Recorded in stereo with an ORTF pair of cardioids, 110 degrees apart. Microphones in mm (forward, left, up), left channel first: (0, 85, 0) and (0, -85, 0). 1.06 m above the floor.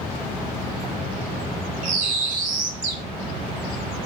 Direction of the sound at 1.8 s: 60° right.